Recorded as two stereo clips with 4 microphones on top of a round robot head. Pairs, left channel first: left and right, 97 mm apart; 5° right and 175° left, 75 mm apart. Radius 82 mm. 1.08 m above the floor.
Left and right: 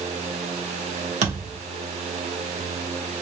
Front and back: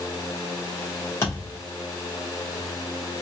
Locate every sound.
1.2 s a thud: 70° right, 1.2 m